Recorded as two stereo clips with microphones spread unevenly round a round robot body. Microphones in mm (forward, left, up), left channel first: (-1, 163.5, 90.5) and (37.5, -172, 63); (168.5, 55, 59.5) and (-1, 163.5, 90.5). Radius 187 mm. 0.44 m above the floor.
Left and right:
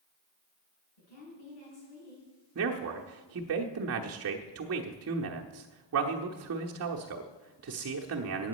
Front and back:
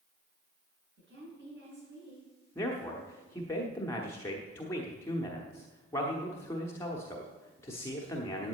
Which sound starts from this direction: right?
A man speaking, at 2.5 s.